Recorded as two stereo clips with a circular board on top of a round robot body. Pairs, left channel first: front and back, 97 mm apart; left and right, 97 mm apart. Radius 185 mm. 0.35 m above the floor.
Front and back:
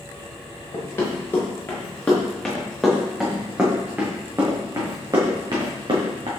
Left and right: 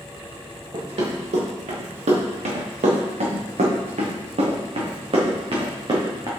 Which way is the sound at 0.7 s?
65° right.